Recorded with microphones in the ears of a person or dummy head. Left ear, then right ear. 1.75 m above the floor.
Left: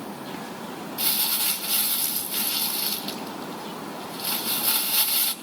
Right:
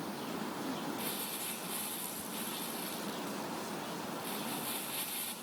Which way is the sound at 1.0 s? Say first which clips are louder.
Left 13 dB; 45° left (ahead or behind).